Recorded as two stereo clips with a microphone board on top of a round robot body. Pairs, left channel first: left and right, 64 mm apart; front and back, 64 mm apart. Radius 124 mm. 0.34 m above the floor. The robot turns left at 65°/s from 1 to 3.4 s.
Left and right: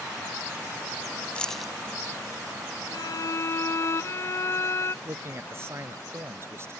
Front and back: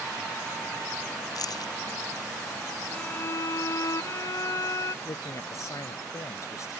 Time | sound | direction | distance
1.4 | keys jangling | 20° left | ?
2.9 | a violin | 75° left | ?
5.0 | a man speaking | 40° right | ?